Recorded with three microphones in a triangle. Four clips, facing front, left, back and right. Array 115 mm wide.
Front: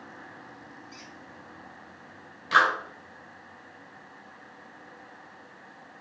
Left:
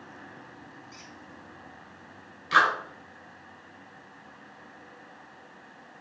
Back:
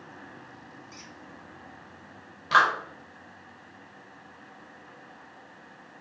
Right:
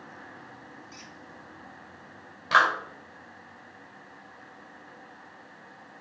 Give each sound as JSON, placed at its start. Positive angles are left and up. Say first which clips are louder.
{"t": 0.9, "sound": "a squeak", "louder": "right 1 dB, even", "azimuth_deg": -150, "distance_m": 1.5}
{"t": 2.5, "sound": "a clap", "louder": "right 1 dB, back 1 dB", "azimuth_deg": -115, "distance_m": 3.5}